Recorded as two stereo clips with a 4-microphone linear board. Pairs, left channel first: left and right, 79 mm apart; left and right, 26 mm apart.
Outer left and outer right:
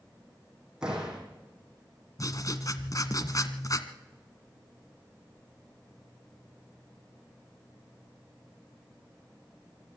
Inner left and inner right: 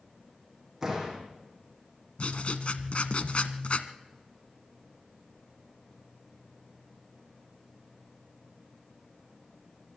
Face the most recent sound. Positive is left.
turn(degrees=50)  # may be behind; listen again after turning